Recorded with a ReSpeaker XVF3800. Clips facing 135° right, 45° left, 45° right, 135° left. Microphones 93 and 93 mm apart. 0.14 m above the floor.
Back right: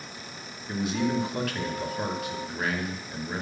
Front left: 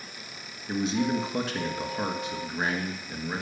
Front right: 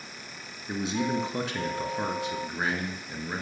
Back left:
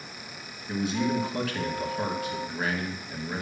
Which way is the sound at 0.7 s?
Straight ahead.